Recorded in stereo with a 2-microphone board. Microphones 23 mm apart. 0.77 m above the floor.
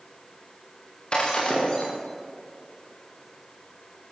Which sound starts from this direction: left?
Breaking glass, at 1.1 s.